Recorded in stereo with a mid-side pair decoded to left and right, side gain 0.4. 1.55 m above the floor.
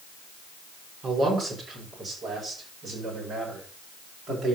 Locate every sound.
1.0 s a man speaking: 55° right, 6 m; by 4.6 s 60° right, 9 m